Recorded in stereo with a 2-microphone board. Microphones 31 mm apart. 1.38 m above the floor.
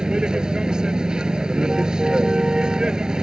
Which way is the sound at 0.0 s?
25° right (ahead or behind).